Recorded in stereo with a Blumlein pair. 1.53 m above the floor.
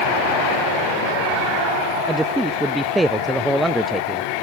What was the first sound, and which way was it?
A man speaking, 5° right.